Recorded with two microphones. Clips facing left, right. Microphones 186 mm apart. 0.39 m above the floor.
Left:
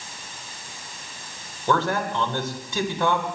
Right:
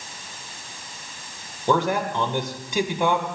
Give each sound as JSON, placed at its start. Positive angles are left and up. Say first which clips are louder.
{"t": 1.7, "sound": "a man speaking", "louder": "right 2 dB", "side_deg": -15, "distance_m": 1.7}